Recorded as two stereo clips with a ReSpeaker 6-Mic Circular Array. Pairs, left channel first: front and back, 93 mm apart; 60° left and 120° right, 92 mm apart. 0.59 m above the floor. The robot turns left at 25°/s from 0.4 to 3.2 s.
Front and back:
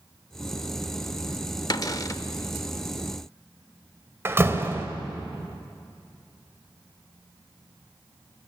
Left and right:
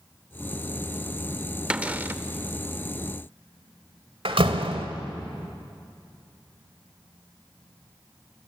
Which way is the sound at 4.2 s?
115° right.